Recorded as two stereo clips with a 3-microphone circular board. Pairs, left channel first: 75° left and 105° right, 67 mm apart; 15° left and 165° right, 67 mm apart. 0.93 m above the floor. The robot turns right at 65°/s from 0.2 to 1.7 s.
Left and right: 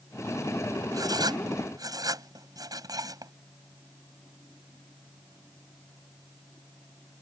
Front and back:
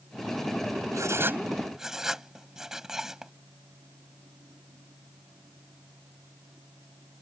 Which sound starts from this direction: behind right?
Writing, at 0.9 s.